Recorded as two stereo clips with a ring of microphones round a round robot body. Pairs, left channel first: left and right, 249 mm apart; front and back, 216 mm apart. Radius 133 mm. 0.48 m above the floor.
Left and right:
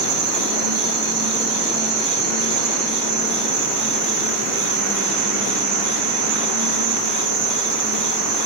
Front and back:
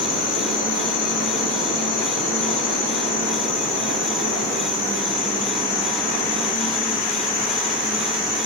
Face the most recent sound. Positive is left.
turn(degrees=-70)